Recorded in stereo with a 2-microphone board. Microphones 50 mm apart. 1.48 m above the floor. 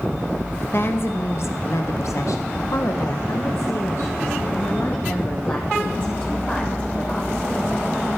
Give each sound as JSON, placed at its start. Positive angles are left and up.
{"t": 0.7, "sound": "a woman speaking", "side_deg": 50, "distance_m": 1.9}